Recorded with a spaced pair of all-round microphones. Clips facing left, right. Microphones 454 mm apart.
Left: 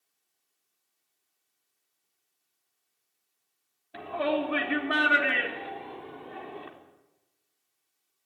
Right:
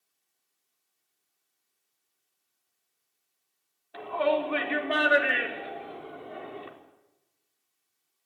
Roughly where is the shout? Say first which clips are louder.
Right 1 dB; left.